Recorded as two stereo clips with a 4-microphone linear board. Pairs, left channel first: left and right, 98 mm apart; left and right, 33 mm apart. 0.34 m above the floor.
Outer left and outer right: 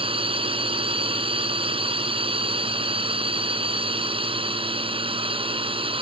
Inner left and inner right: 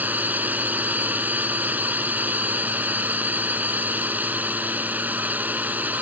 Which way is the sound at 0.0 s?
65° right (ahead or behind).